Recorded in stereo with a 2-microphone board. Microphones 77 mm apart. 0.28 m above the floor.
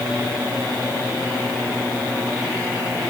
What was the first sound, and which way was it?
Only background noise.